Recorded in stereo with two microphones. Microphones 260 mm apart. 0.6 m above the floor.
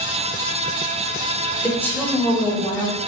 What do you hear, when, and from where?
1.6 s a woman speaking: 5° left (ahead or behind), 2 m; by 3.0 s 15° left (ahead or behind), 3.5 m